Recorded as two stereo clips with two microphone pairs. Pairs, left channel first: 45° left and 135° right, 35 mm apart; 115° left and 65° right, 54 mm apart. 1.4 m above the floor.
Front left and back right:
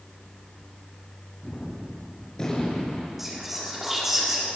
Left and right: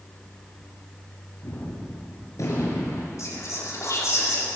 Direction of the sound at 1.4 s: 115° left.